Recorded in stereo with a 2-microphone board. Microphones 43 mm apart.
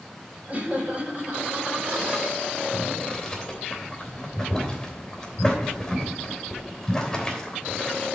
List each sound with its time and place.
0.5 s laughter: 35° right (ahead or behind), 5 m; by 2.3 s 25° right (ahead or behind), 6 m
2.7 s boiling: 10° left (ahead or behind), 3 m